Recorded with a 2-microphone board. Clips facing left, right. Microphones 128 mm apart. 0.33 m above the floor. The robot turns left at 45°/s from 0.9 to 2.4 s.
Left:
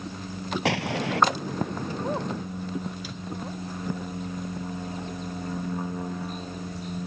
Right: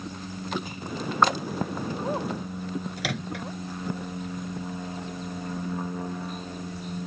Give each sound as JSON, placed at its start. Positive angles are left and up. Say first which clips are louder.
{"t": 0.7, "sound": "an explosion", "louder": "left 7 dB", "side_deg": 80}
{"t": 3.0, "sound": "a microwave", "louder": "right 3 dB", "side_deg": -75}